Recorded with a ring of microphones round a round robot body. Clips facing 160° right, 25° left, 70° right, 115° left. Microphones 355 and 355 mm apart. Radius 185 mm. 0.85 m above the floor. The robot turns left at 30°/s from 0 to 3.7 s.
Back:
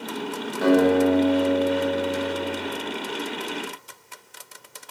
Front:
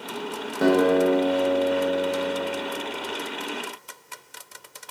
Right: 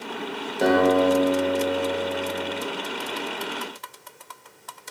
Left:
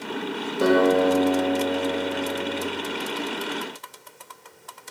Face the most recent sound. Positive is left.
turn(degrees=-60)